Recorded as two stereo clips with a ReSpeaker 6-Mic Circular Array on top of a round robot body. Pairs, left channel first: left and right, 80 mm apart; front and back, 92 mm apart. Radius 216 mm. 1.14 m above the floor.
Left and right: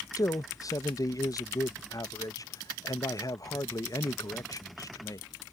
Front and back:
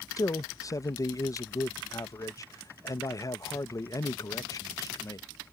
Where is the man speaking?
50° left.